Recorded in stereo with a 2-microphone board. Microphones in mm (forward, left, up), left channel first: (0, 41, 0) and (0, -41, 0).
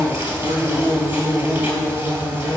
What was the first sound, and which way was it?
An insect, 35° right (ahead or behind).